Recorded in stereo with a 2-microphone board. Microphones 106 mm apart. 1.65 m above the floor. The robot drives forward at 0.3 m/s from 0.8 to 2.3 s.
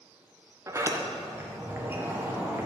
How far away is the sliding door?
About 1.1 m.